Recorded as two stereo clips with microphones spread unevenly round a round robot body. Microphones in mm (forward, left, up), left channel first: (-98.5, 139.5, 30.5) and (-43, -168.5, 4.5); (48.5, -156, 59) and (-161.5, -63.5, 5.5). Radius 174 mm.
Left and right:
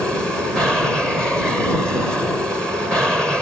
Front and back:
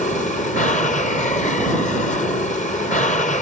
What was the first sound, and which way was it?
An aircraft, straight ahead.